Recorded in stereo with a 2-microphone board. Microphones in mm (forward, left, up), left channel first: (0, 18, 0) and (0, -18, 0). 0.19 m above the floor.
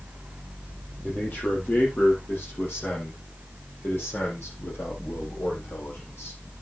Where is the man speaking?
50° left (ahead or behind), 7 m; by 6.4 s 80° left, 8 m.